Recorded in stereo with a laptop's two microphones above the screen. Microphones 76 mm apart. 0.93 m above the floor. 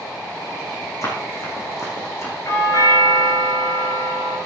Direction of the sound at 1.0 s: 50° left (ahead or behind).